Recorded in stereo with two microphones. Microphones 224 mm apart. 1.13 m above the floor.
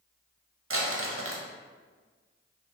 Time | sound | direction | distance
0.7 | crumpling | 65° right (ahead or behind) | 0.5 m